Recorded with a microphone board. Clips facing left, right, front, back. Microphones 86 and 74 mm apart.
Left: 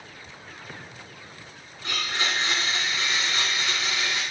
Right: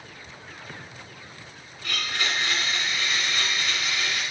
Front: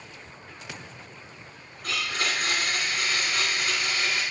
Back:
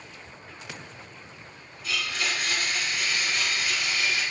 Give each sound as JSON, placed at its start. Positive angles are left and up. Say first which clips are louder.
{"t": 1.8, "sound": "a blender", "louder": "left 1 dB, front 1 dB", "azimuth_deg": 25, "distance_m": 2.5}